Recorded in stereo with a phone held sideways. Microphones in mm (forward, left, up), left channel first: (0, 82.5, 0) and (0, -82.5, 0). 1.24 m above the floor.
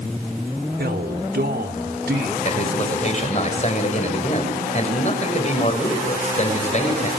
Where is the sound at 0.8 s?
80° right, 3 m.